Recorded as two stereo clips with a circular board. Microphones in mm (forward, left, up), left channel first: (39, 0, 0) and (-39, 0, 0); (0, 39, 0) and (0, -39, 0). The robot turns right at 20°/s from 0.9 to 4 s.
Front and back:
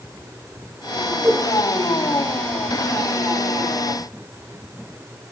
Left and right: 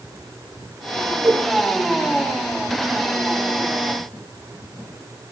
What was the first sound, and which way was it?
A whoosh, 130° right.